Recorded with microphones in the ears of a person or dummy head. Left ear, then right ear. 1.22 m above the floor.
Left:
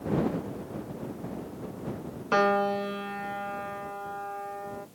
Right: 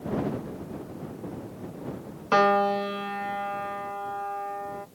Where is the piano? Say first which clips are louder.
Right 3 dB; 20° right (ahead or behind).